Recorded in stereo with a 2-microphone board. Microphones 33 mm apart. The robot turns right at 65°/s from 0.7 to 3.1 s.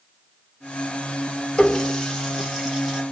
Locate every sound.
1.6 s a running tap: 20° left (ahead or behind), 0.7 m; by 3.0 s 10° right (ahead or behind), 0.7 m